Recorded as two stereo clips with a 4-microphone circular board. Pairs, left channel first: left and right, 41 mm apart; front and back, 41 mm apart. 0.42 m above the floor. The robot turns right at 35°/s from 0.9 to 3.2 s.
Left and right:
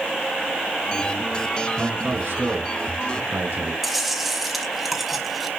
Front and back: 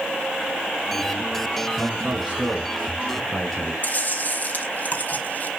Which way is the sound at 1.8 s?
140° right.